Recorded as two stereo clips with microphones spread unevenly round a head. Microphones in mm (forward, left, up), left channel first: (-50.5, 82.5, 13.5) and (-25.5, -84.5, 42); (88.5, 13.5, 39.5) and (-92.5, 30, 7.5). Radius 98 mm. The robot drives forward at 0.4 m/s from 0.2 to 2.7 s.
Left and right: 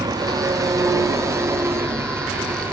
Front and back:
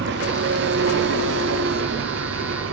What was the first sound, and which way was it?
An engine running, 150° right.